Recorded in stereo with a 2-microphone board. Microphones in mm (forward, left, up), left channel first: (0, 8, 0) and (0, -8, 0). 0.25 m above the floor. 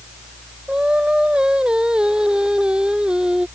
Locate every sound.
0.7 s singing: 65° right (ahead or behind)